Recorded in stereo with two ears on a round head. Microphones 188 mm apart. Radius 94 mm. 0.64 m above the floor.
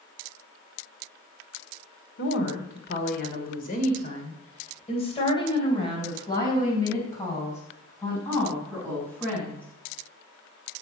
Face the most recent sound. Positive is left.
turn(degrees=5)  # may be behind; listen again after turning